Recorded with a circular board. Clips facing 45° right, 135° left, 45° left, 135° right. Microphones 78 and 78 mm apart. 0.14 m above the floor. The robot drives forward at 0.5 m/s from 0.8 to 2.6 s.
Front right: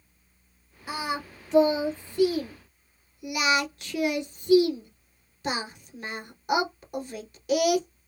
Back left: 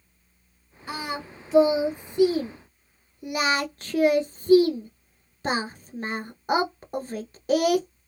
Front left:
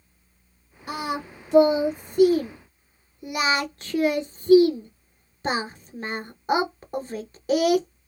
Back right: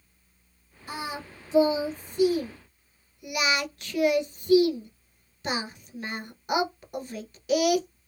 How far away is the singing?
About 1.0 m.